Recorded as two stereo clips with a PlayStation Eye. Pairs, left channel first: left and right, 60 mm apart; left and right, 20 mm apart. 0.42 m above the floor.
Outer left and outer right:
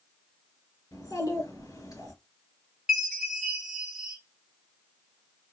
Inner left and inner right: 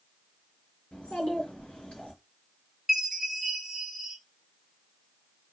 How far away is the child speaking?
About 4 m.